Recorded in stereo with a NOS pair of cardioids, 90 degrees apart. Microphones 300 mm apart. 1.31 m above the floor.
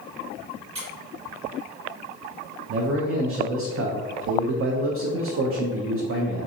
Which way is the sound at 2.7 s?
50° right.